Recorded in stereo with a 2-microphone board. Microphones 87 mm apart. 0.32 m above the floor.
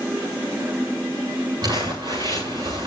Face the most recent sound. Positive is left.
turn(degrees=-50)  # may be behind; listen again after turning